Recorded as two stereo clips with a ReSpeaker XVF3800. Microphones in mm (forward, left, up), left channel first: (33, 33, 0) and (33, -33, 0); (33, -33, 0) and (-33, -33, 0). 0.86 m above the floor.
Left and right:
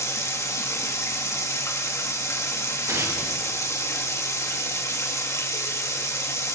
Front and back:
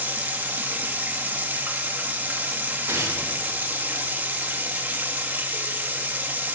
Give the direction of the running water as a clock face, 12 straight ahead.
8 o'clock.